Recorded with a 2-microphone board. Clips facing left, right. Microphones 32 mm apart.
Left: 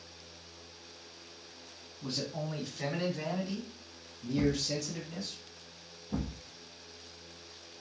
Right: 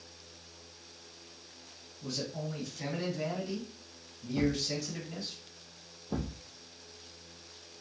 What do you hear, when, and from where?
2.0 s a man speaking: 35° left (ahead or behind), 2 m; by 5.3 s 20° right (ahead or behind), 1.8 m
4.3 s a thud: 70° right (ahead or behind), 1.5 m